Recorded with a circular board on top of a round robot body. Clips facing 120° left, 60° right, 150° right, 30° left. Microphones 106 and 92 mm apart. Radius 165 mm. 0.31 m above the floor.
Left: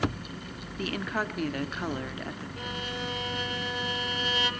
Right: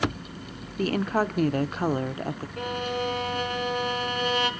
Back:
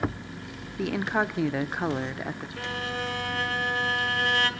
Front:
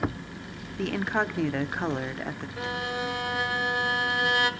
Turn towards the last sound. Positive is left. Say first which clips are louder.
# right 9 dB, front 2 dB
turn(degrees=-40)